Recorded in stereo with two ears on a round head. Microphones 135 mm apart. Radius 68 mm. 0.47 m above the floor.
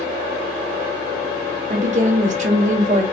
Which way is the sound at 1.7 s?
50° right (ahead or behind).